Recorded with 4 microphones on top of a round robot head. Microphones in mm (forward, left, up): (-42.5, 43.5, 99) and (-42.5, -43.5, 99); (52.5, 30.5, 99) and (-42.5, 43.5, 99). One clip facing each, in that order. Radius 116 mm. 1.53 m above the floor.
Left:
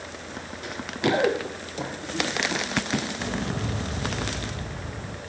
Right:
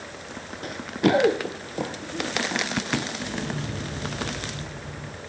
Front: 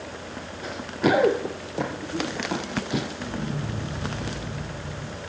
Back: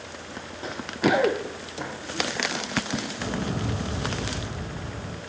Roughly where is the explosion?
Behind left.